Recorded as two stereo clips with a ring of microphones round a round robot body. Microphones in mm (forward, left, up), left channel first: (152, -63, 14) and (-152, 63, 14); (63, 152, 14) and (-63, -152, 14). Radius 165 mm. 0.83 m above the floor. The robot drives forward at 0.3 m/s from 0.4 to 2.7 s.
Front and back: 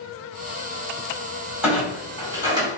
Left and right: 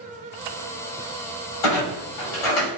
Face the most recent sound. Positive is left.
turn(degrees=80)